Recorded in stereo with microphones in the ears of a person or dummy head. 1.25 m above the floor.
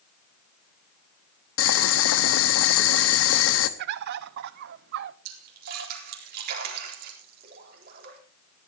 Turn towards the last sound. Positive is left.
turn(degrees=-55)  # may be behind; listen again after turning